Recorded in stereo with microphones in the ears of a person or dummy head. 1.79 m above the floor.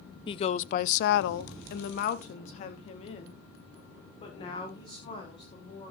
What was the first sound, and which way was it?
A woman speaking, 30° left (ahead or behind).